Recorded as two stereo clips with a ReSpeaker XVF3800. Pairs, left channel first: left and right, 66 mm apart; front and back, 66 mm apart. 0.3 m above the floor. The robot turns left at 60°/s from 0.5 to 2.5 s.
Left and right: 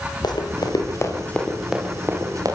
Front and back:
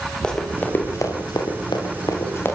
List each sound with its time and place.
0.2 s running footsteps: 75° left, 6 m; by 2.6 s 60° right, 8 m